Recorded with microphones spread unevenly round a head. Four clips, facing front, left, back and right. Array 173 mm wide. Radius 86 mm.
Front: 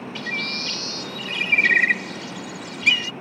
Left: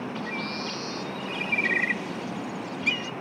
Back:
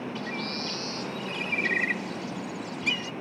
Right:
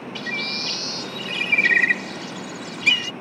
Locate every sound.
0.1 s a bird: 45° right